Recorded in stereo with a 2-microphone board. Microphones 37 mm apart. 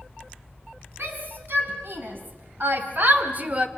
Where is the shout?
65° right (ahead or behind), 5 m; by 3.7 s 30° right (ahead or behind), 1.4 m.